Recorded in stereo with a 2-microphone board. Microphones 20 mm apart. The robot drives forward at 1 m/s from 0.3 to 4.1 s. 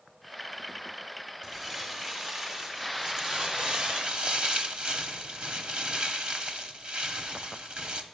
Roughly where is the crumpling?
Centre.